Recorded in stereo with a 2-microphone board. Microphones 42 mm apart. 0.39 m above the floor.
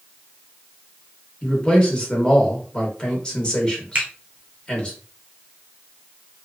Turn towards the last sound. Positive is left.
turn(degrees=-35)  # may be behind; listen again after turning